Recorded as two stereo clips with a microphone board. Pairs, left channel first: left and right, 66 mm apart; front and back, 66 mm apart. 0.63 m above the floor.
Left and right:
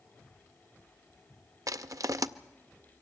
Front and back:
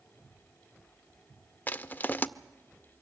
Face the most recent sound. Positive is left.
turn(degrees=-60)